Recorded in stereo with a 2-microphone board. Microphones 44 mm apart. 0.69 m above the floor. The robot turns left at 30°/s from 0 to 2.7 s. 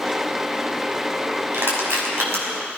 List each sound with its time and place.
1.5 s crushing: 65° right (ahead or behind), 5.5 m; by 2.4 s 80° right, 5.5 m